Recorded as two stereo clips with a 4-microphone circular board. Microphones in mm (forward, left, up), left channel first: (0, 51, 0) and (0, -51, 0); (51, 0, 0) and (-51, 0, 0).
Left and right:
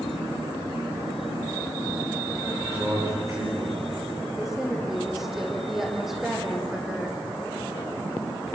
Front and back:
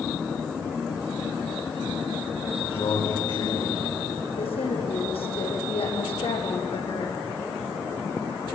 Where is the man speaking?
30° right, 9 m.